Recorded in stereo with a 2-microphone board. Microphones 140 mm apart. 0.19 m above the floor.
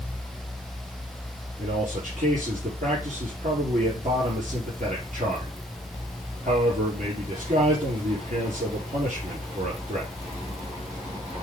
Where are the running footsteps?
I don't hear running footsteps.